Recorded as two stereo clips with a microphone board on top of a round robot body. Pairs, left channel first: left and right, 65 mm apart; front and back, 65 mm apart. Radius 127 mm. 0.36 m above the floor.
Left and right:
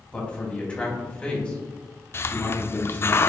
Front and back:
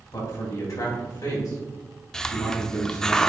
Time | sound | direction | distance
0.1 | a man speaking | 20° left | 2.5 m
2.1 | a hiss | 75° left | 0.5 m